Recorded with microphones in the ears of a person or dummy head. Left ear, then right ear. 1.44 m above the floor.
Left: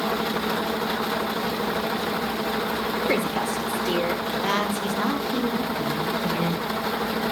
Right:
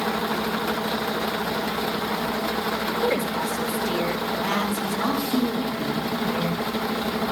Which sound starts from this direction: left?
A woman speaking, at 3.0 s.